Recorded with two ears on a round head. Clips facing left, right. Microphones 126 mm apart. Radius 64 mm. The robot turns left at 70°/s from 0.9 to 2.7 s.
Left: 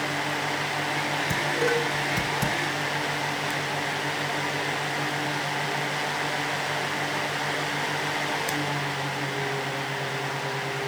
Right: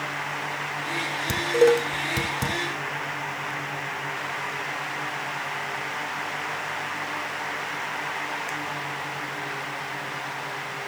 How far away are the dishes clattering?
About 2.5 m.